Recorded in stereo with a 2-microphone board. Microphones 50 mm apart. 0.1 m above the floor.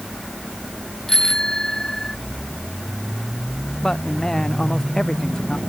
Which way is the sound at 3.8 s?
10° left (ahead or behind).